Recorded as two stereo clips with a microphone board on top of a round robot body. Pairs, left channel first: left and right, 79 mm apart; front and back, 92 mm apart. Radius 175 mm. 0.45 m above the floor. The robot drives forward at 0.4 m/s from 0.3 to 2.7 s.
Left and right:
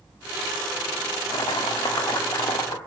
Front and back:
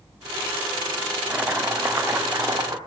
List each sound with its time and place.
1.3 s chopping: 110° left, 1.3 m; by 2.8 s 130° left, 1.5 m